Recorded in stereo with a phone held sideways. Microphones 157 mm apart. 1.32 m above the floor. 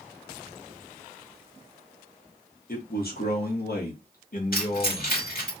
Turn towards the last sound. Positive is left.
turn(degrees=70)  # may be behind; listen again after turning